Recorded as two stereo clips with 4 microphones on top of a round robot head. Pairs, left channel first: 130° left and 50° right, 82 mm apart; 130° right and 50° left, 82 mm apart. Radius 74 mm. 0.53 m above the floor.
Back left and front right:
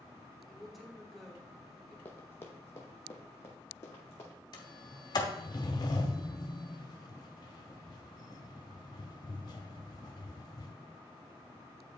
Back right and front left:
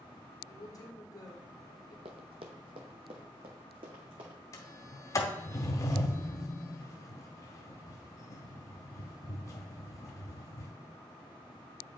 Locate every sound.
0.5 s a woman speaking: 140° right, 1.5 m
2.0 s running footsteps: 65° left, 0.8 m; by 4.4 s 75° left, 1.9 m
4.5 s a sliding door: 175° left, 0.8 m